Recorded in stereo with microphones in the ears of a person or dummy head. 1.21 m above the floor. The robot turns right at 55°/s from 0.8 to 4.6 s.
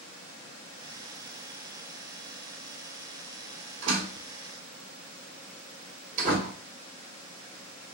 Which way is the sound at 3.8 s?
85° right.